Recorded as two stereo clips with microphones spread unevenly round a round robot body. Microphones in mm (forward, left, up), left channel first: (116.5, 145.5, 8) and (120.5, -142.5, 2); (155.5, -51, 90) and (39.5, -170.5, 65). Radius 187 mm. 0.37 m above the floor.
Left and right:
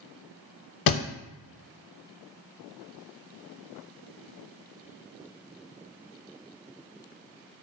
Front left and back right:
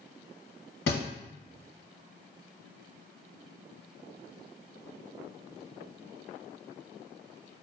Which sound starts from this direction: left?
A thud, at 0.9 s.